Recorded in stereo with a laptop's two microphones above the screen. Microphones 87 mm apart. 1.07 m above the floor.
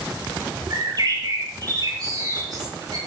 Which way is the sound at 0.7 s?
45° right (ahead or behind).